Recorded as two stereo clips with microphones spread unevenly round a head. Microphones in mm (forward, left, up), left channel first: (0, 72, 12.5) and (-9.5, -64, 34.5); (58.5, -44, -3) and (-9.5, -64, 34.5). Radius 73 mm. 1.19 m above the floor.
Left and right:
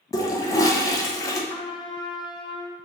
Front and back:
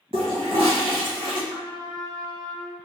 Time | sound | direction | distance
0.1 | a toilet flushing | 150° left | 0.6 m
1.5 | a trumpet | 135° left | 0.5 m